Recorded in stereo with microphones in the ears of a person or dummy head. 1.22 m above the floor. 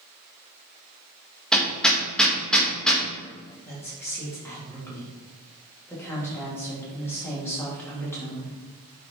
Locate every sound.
1.5 s hammering: centre (ahead or behind), 1.2 m
3.6 s a woman speaking: 10° left (ahead or behind), 2 m